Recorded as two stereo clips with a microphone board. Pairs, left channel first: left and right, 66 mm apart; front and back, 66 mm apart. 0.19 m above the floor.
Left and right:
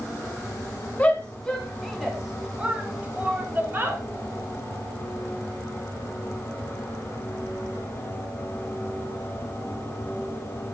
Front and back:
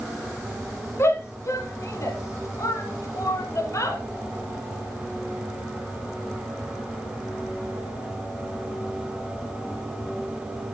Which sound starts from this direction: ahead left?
A shout, at 1.0 s.